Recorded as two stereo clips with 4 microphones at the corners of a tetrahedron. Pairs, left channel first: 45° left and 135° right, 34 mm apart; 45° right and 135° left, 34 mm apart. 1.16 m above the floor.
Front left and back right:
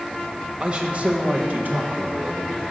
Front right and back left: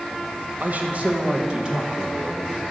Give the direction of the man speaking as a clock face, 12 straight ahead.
7 o'clock.